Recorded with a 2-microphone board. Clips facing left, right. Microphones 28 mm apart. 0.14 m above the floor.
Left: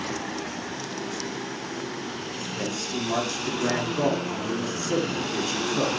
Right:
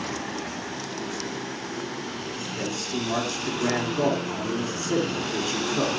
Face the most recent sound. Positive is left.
turn(degrees=-5)  # may be behind; listen again after turning